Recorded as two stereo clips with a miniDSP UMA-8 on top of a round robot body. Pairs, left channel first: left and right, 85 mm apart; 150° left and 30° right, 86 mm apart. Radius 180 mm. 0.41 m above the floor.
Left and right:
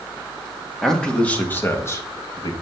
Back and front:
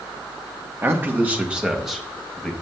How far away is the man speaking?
About 1.6 m.